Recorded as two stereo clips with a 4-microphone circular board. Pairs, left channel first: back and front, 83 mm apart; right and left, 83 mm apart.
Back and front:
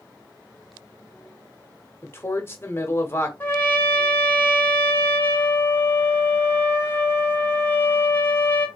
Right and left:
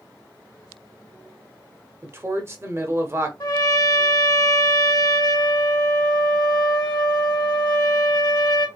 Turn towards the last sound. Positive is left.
turn(degrees=-120)